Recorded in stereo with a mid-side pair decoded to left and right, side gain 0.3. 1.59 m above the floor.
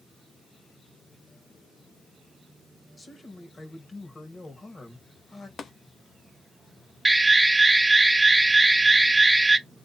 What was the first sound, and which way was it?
A man speaking, 45° left.